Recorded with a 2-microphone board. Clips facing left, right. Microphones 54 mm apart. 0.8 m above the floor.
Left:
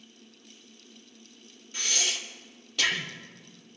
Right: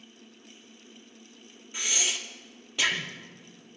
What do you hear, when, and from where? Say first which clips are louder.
1.7 s breathing: even; 15° right (ahead or behind), 1.4 m